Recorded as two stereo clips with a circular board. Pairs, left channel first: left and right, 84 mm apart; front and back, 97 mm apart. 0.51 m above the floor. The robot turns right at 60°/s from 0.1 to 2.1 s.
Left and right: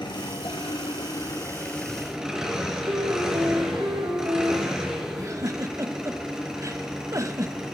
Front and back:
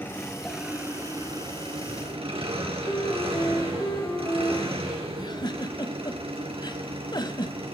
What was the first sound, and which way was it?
An engine running, 65° left.